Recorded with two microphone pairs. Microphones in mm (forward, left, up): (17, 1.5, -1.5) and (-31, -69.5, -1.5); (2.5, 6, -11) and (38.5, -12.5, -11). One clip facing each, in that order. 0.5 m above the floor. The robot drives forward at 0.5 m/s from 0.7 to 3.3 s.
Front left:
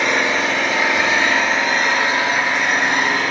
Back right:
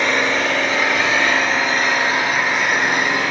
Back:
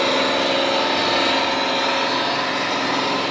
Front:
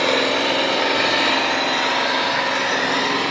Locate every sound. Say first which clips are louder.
0.0 s an engine running: even, even; 35° right, 4 m; by 3.3 s 50° right, 3 m